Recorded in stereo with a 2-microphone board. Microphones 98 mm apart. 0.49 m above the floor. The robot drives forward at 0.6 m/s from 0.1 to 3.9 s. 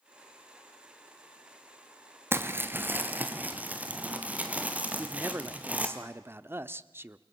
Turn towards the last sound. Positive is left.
turn(degrees=-25)  # may be behind; listen again after turning